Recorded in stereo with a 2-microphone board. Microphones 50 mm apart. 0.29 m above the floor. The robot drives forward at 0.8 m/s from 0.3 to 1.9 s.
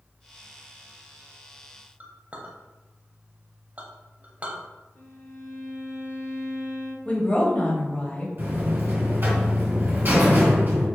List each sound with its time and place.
2.0 s a clink: 30° right (ahead or behind), 0.8 m
5.0 s a violin: 60° left (ahead or behind), 2 m
7.0 s a woman speaking: 25° left (ahead or behind), 1.0 m
8.4 s a buzzer: 45° right (ahead or behind), 1.9 m